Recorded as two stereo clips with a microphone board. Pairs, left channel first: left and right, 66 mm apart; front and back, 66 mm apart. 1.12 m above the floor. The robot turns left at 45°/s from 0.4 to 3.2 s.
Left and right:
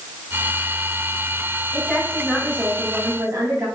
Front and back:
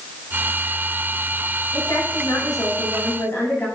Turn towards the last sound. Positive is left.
turn(degrees=-55)